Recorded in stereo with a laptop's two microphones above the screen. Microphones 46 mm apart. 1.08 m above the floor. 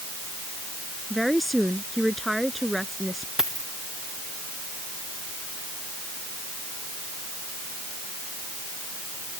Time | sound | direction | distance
1.1 | a woman speaking | centre (ahead or behind) | ?
3.4 | a dropped coin | 15° right (ahead or behind) | ?